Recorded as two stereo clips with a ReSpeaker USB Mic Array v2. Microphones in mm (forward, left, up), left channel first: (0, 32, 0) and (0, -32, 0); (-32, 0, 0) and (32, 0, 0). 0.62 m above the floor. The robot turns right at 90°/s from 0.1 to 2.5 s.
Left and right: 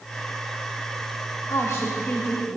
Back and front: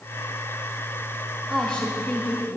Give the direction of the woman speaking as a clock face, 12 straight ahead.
9 o'clock.